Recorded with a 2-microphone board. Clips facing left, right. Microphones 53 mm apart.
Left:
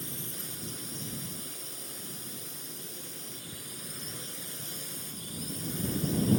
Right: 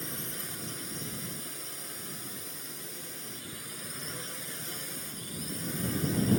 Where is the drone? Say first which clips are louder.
Right 2 dB; 60° right (ahead or behind).